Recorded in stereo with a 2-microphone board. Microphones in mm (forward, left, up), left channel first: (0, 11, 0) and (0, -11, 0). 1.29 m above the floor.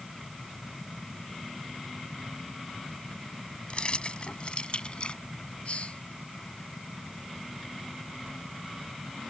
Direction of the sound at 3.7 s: 50° left (ahead or behind).